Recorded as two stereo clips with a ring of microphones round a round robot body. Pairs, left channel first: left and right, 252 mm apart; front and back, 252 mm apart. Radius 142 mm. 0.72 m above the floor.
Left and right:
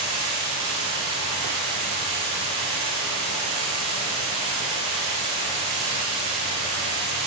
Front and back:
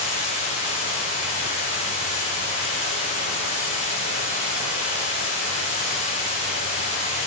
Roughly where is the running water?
Ahead right.